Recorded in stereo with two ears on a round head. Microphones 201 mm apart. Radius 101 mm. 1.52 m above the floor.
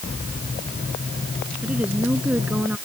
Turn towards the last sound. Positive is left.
turn(degrees=-5)  # may be behind; listen again after turning